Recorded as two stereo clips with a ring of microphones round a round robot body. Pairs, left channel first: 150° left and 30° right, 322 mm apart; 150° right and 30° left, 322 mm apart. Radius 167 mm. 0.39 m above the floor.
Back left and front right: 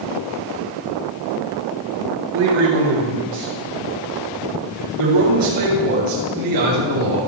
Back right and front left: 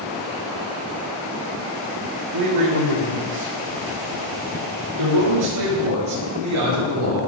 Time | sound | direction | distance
2.3 | a man speaking | 10° left | 7 m